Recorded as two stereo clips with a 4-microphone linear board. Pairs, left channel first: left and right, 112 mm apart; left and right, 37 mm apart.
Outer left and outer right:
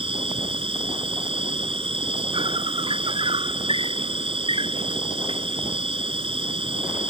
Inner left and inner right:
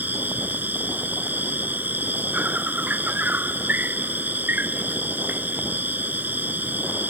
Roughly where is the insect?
Right.